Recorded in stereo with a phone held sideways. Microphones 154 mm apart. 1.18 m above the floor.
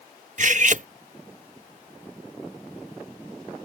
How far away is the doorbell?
I don't hear a doorbell.